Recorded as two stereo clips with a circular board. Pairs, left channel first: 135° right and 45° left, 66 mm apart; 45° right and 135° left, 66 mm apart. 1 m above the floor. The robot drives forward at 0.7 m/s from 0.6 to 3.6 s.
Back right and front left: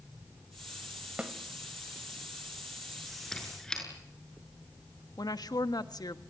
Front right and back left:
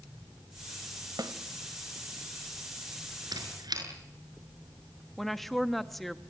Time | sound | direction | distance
1.2 | a snare drum | 115° left | 1.9 m
3.3 | a squeak | 145° left | 6 m
5.2 | a woman speaking | 135° right | 1.4 m